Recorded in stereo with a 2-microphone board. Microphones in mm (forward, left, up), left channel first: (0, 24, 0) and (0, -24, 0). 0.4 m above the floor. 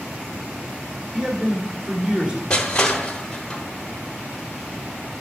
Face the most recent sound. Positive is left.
turn(degrees=20)  # may be behind; listen again after turning